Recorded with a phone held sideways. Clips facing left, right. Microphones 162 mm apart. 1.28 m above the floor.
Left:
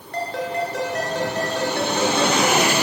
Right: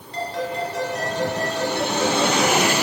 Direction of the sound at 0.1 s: 60° left (ahead or behind).